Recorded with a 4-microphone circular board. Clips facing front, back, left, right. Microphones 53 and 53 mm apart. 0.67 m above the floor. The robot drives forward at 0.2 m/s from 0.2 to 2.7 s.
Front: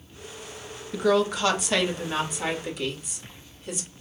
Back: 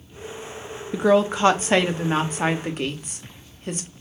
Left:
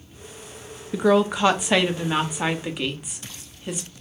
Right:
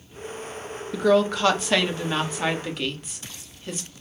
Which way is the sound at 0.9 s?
145° left.